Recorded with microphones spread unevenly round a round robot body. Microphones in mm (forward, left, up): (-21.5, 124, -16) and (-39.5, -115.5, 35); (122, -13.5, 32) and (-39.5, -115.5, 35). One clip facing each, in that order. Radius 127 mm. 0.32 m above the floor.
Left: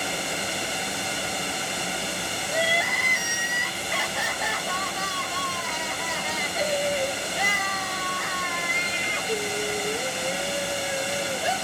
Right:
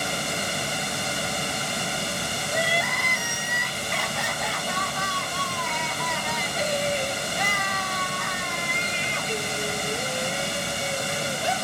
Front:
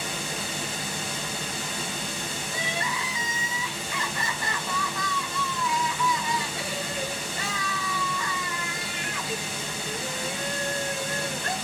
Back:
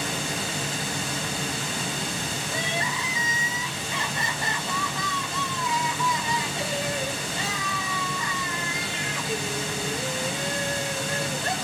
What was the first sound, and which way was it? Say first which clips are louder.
Running water: right 1 dB, back 3 dB; 145° right.